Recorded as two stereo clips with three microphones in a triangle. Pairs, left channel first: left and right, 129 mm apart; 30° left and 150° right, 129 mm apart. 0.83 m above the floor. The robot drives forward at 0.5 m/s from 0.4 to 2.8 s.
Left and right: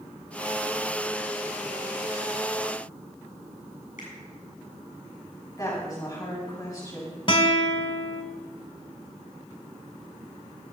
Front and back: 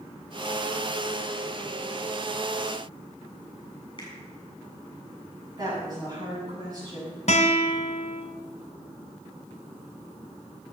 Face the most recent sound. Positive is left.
turn(degrees=45)